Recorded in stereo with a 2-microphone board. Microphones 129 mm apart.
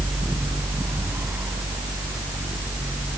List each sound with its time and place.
Only background noise.